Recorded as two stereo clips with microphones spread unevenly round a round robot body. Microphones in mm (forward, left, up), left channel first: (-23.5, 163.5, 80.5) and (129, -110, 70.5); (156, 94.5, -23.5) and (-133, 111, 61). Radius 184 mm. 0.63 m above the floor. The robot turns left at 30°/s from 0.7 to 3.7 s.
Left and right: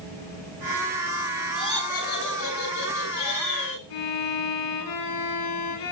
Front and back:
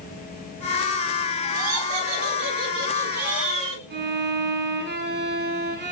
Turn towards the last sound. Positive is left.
turn(degrees=125)